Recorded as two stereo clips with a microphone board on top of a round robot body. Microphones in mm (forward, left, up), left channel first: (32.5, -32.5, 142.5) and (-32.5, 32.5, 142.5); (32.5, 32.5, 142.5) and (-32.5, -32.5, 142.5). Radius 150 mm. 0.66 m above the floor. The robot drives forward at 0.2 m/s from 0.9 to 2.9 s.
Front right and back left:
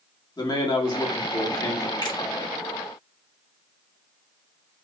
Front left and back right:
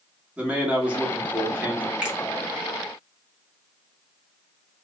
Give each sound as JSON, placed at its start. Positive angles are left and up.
{"t": 0.4, "sound": "a man speaking", "azimuth_deg": -60, "distance_m": 1.6}
{"t": 2.0, "sound": "a finger snap", "azimuth_deg": -60, "distance_m": 1.4}